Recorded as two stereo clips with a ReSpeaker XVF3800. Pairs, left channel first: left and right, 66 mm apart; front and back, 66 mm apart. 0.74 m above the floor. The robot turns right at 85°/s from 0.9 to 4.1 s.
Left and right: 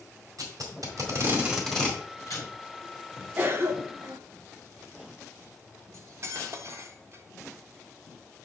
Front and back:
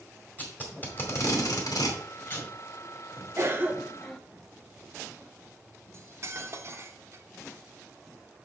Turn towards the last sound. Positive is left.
turn(degrees=-135)